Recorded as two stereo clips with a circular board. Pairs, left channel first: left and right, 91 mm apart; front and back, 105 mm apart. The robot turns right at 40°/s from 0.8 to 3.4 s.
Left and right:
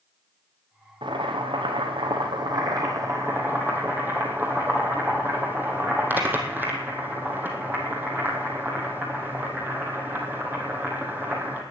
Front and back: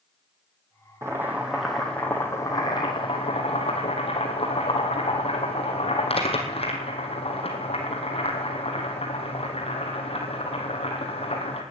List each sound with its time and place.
1.0 s boiling: 115° right, 2.5 m; by 11.6 s 20° right, 2.5 m